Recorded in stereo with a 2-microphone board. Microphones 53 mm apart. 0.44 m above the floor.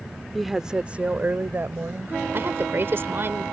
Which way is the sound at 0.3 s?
Centre (ahead or behind).